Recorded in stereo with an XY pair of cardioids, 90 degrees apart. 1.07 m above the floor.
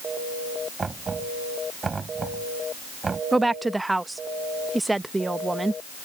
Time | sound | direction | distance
0.8 | knocking | 35° right | ?
3.3 | a woman speaking | 15° right | ?